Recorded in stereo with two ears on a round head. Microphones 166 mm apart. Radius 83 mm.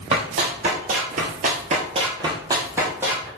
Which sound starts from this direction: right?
Running footsteps, at 0.1 s.